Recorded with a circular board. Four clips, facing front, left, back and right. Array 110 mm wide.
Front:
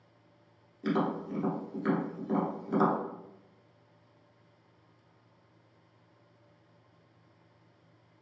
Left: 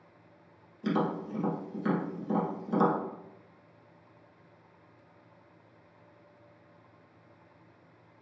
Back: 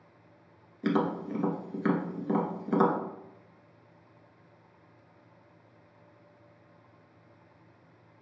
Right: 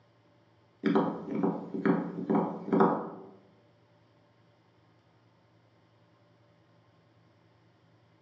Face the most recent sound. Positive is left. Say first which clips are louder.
# right 3 dB, back 2 dB
turn(degrees=-120)